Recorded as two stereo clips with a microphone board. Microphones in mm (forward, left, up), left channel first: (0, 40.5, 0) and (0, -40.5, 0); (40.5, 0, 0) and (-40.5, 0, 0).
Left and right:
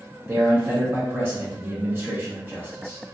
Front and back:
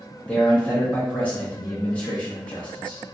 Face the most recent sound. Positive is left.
turn(degrees=-55)